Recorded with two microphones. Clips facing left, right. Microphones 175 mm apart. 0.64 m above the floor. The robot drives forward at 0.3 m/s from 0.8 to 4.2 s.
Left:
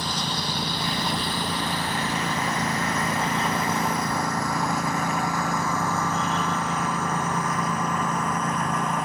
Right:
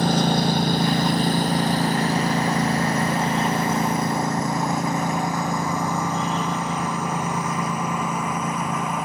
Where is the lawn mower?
55° right (ahead or behind); by 9.1 s 5° right (ahead or behind).